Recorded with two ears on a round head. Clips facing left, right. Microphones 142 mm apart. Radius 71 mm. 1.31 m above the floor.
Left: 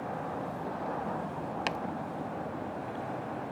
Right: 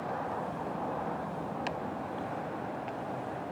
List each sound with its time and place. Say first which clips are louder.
1.7 s chopping: left 4 dB; 70° left (ahead or behind)